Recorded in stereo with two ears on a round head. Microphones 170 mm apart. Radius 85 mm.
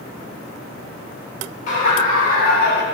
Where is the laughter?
40° left (ahead or behind), 2.5 m; by 2.8 s 55° left (ahead or behind), 1.3 m.